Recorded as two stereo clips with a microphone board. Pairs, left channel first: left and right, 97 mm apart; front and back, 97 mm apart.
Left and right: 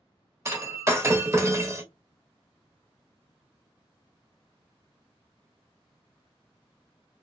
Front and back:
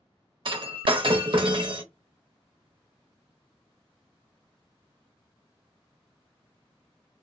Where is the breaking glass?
150° right, 0.6 m.